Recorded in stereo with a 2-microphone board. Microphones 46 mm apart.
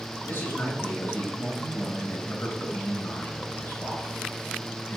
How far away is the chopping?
I don't hear chopping.